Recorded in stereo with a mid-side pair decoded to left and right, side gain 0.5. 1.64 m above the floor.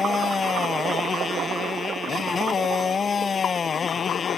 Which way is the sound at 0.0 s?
35° left.